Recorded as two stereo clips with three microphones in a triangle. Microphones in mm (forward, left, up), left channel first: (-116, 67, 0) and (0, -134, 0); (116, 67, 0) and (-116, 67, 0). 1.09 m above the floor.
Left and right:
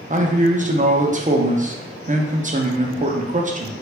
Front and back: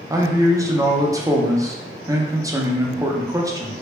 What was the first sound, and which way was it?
A man speaking, 110° right.